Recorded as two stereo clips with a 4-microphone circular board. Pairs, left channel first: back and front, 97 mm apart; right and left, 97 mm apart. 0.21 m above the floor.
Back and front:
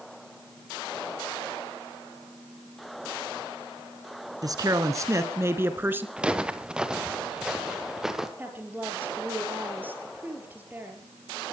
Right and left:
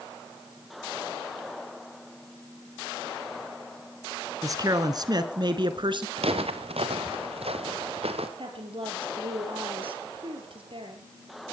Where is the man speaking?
40° left, 2.5 m; by 6.1 s 65° left, 2.5 m.